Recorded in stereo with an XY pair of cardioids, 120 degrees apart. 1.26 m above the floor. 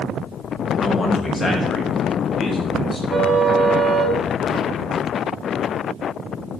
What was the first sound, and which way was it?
A man speaking, 25° left.